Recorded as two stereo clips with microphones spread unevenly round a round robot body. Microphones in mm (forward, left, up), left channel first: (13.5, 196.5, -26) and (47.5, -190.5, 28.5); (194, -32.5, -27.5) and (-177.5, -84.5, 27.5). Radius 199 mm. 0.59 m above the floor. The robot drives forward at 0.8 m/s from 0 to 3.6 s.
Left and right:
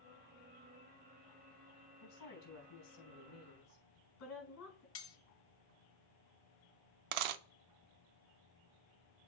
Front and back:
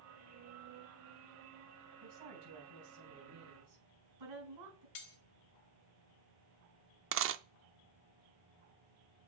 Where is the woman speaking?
140° left, 4 m; by 4.8 s 150° left, 5 m.